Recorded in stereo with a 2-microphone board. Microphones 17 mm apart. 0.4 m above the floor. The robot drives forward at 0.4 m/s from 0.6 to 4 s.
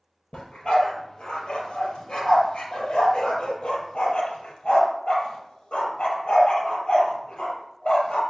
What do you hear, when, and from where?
0.3 s a dog barking: 80° left, 3.5 m